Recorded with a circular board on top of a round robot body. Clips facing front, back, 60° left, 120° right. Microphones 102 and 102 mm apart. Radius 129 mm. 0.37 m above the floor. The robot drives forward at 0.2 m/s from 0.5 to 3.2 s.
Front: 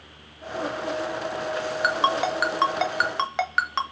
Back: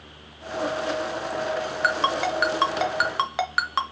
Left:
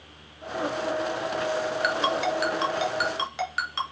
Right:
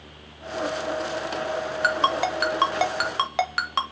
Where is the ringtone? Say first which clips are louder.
Front 1 dB, right 5 dB; 75° right, 0.7 m; by 3.8 s 100° right, 0.7 m.